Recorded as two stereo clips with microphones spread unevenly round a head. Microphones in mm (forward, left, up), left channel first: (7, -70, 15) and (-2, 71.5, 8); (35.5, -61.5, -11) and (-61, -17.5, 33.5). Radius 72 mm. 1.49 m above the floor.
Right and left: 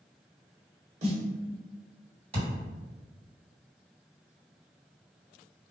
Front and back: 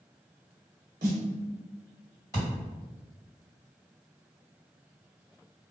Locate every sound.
1.0 s a snare drum: 140° left, 0.7 m
2.3 s a thud: 55° left, 2.0 m